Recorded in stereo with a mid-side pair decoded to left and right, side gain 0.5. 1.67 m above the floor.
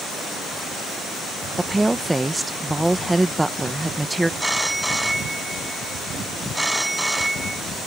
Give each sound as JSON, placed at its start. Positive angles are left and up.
{"t": 1.6, "sound": "a woman speaking", "azimuth_deg": -10}
{"t": 4.4, "sound": "a phone ringing", "azimuth_deg": -10}